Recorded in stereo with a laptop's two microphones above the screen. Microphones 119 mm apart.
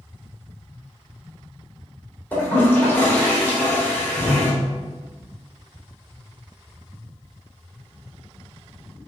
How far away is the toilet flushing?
About 3 m.